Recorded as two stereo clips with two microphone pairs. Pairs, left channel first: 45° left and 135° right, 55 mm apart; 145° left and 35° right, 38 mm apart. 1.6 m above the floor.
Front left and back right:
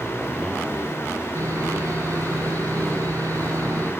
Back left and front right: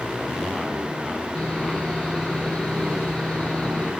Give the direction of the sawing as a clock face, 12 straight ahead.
5 o'clock.